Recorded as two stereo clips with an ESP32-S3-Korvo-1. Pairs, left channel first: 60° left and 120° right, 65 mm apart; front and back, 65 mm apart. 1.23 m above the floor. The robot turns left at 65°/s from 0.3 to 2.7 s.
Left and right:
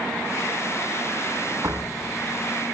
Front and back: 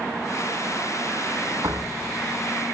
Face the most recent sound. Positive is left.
turn(degrees=140)